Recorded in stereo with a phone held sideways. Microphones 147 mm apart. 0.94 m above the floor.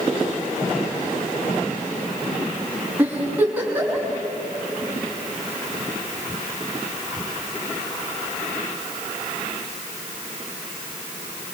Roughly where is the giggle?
Centre.